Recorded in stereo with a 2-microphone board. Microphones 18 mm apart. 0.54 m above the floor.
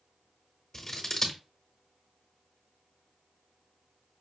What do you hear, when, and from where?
0.7 s scissors: 20° left (ahead or behind), 1.1 m